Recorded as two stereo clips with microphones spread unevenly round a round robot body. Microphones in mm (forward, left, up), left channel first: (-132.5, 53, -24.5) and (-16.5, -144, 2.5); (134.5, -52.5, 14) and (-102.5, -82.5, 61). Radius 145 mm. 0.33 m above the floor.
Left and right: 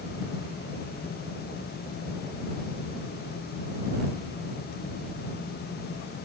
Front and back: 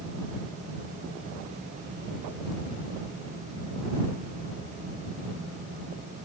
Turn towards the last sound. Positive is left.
No sound to turn to.